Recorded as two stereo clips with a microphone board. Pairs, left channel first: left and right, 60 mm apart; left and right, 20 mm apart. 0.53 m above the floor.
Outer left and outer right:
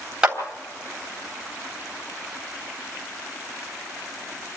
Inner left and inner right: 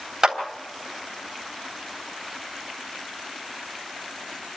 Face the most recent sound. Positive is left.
turn(degrees=-15)  # may be behind; listen again after turning